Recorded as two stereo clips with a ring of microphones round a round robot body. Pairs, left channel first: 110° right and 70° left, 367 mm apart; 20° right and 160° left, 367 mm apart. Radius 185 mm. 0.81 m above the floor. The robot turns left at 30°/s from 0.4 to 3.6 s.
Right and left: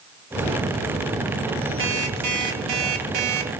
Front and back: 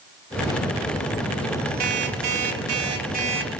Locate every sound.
1.8 s an alarm clock: 130° left, 3 m; by 3.5 s 75° left, 3 m